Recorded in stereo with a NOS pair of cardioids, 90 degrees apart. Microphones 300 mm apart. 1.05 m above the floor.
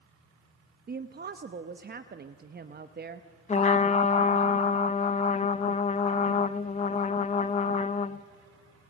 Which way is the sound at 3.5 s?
20° left.